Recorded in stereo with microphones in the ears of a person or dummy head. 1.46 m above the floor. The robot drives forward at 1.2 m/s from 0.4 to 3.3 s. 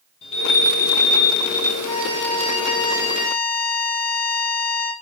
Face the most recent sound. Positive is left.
turn(degrees=50)  # may be behind; listen again after turning